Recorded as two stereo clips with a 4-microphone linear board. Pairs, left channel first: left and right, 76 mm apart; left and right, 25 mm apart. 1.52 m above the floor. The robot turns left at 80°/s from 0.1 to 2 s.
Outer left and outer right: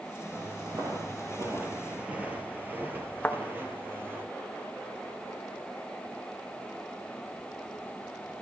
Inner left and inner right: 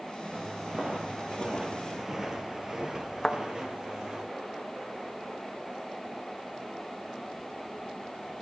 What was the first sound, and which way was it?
Footsteps, 30° right (ahead or behind).